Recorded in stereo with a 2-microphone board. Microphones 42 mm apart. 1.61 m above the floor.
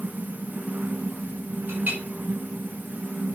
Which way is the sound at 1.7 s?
45° right (ahead or behind).